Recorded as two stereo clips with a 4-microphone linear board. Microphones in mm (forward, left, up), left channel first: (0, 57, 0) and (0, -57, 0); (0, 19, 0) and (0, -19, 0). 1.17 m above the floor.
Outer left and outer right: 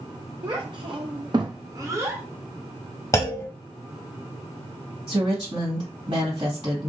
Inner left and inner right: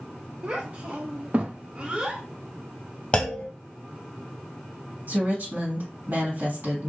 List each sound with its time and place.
0.4 s a child speaking: 35° right (ahead or behind), 0.6 m; by 2.2 s 20° right (ahead or behind), 0.9 m
3.1 s a clunk: 30° left (ahead or behind), 0.9 m
5.1 s a woman speaking: 60° right (ahead or behind), 2.5 m